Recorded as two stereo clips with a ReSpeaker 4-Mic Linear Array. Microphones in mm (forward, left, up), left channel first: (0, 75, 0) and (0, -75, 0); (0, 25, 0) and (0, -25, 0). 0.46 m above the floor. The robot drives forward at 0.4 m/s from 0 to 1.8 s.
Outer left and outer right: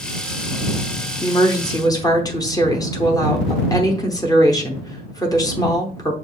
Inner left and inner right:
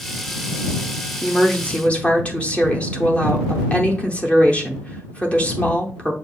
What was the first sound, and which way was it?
A woman speaking, 25° left (ahead or behind).